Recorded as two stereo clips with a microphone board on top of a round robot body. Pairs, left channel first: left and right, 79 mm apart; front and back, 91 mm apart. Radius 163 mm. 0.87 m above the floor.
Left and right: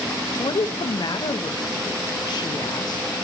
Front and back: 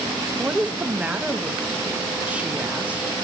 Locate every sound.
0.4 s a woman speaking: 105° left, 1.7 m